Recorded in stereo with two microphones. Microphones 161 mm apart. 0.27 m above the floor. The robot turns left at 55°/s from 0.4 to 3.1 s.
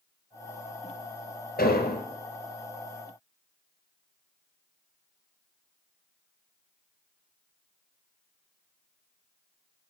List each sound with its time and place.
1.6 s an explosion: 80° left, 1.5 m; by 2.0 s 75° left (ahead or behind), 1.5 m